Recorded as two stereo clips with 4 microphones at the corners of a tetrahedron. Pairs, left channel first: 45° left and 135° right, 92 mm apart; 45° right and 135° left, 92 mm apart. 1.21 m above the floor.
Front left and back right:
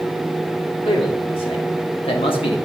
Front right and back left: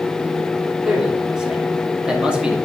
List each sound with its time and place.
0.8 s a man speaking: 50° left, 3 m; by 2.6 s 55° left, 1.8 m